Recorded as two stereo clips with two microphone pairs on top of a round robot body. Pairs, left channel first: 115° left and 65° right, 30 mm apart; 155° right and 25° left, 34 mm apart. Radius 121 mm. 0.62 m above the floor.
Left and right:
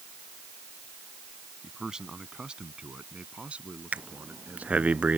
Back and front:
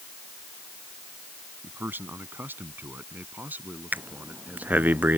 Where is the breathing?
15° right.